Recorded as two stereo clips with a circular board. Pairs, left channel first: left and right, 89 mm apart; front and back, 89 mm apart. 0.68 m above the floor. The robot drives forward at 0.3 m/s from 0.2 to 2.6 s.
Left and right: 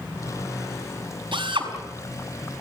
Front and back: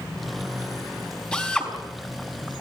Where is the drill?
80° right, 5 m.